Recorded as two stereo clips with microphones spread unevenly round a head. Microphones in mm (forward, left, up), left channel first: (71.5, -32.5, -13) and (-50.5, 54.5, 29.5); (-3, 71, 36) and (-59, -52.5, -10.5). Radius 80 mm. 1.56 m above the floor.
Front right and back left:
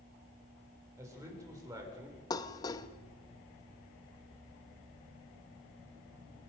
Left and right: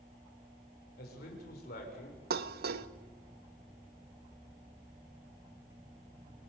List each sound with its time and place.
1.0 s a man speaking: 75° left, 7.5 m; by 2.2 s 80° left, 7 m
2.3 s dishes clattering: 110° right, 1.0 m